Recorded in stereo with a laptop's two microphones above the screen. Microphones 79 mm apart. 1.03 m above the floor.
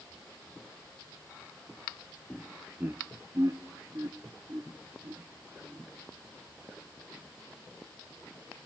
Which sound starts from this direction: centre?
Laughter, at 2.3 s.